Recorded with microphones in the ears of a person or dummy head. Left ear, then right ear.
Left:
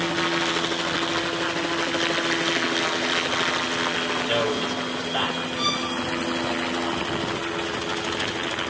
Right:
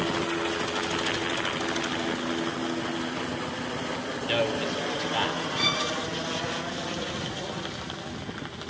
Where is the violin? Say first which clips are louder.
Even; 10° right (ahead or behind), 5.5 m.